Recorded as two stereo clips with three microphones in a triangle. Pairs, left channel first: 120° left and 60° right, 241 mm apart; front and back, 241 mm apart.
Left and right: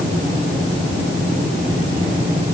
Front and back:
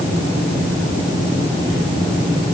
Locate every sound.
Only background noise.